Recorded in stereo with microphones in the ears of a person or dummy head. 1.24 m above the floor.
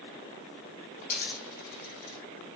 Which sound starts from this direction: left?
A dropped coin, at 1.0 s.